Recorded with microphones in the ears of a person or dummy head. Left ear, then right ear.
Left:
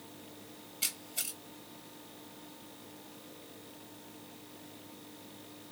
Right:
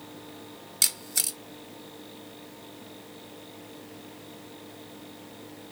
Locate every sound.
0.8 s a camera shutter: 65° right (ahead or behind), 1.0 m